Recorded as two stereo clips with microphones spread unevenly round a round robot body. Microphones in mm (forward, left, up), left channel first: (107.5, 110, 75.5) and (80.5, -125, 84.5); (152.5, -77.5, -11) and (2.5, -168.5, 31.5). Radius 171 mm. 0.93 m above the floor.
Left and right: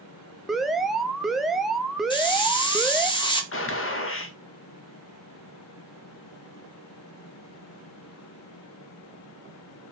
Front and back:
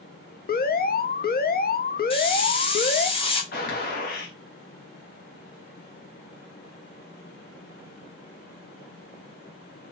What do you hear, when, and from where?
0.5 s an alarm: 5° right, 0.7 m
2.1 s a hiss: 25° left, 1.2 m
3.5 s a gunshot: 55° left, 0.9 m